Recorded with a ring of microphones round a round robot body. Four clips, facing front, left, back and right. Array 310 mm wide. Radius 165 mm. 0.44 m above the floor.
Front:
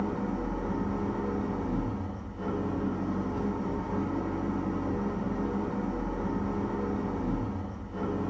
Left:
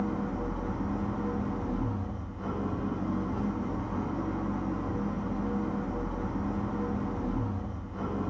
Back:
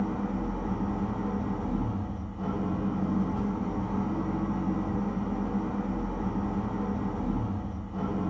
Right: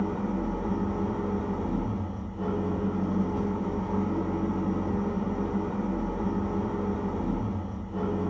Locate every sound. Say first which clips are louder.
0.0 s an engine running: right 3 dB, back 1 dB; 65° right, 1.2 m